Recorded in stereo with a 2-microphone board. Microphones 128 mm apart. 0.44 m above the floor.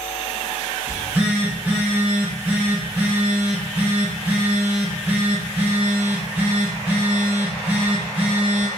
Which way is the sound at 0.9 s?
15° right (ahead or behind).